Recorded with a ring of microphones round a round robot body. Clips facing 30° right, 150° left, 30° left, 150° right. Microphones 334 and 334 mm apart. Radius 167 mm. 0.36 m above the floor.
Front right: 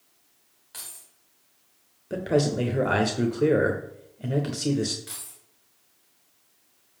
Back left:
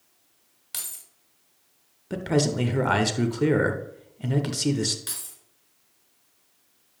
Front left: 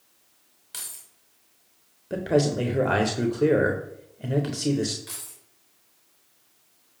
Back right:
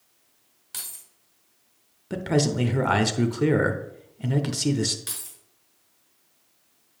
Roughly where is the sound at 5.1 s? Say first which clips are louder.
Back left 1 dB, even; behind.